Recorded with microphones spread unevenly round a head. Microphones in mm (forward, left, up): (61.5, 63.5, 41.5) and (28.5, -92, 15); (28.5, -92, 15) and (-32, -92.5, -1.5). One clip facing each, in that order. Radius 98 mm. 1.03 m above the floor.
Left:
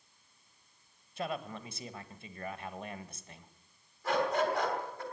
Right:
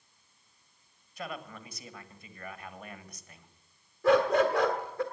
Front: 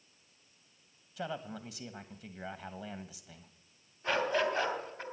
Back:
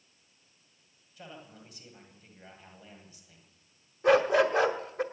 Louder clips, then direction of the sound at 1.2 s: Left 3 dB, front 9 dB; 10° left.